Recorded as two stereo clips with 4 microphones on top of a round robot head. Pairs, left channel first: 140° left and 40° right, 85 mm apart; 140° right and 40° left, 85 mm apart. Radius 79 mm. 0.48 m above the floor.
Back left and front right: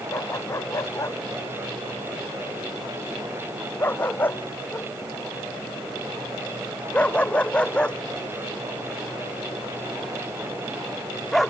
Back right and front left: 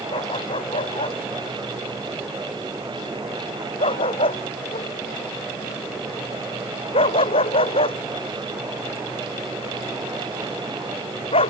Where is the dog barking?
165° right; by 11.5 s 135° right.